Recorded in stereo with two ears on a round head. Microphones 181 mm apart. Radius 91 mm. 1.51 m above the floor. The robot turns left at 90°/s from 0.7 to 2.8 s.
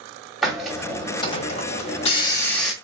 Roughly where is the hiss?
Behind.